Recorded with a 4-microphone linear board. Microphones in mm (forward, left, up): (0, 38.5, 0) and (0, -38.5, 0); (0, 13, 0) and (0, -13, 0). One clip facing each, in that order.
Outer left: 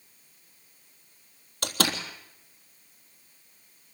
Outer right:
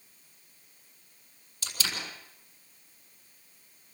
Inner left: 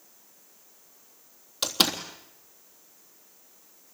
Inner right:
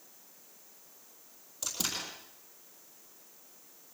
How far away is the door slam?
About 3.5 m.